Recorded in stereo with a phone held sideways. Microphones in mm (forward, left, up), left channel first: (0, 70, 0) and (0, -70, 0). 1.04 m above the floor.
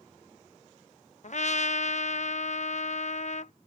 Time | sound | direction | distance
1.2 | a trumpet | 60° left (ahead or behind) | ?